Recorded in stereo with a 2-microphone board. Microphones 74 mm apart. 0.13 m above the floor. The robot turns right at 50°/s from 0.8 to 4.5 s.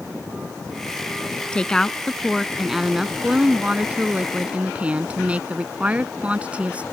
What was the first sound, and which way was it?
A woman speaking, 15° left (ahead or behind).